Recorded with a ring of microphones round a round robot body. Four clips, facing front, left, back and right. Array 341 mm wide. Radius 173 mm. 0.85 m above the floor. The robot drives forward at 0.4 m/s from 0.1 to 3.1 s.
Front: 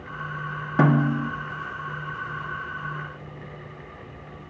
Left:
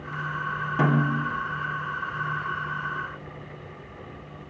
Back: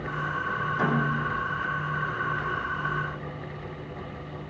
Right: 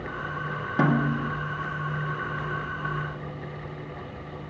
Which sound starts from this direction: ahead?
A snare drum, at 0.8 s.